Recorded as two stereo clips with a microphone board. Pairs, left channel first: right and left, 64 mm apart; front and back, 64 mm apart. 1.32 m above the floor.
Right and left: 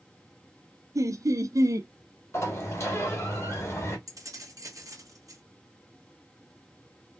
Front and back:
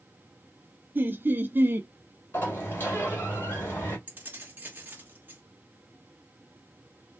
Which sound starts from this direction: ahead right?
A sliding door, at 2.3 s.